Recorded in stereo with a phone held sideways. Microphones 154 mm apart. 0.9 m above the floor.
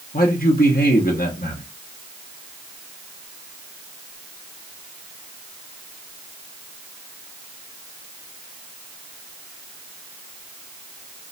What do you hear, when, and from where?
0.1 s a man speaking: 70° left (ahead or behind), 1.1 m